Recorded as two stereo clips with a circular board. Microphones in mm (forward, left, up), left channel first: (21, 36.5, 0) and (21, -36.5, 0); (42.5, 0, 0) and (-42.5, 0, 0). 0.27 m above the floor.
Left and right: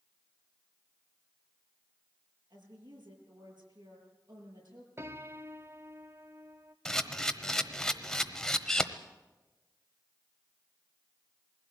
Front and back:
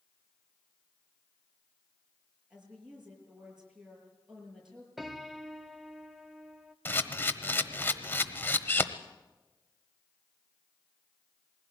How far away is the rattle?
I don't hear a rattle.